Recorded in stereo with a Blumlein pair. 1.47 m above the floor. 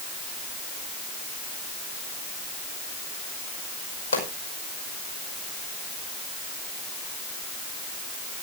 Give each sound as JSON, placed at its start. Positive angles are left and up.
{"t": 4.1, "sound": "a pop", "azimuth_deg": 70, "distance_m": 5.5}